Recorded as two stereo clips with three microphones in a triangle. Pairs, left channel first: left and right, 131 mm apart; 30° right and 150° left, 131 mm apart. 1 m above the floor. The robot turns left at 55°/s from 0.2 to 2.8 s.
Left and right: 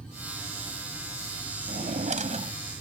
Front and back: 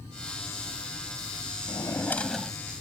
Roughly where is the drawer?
Right.